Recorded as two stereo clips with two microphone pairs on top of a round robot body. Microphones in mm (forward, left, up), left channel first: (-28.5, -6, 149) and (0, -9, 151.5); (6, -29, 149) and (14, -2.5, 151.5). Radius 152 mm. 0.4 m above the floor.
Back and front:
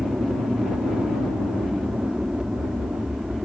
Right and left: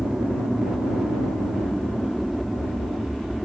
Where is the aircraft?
Straight ahead; by 3.5 s 25° right.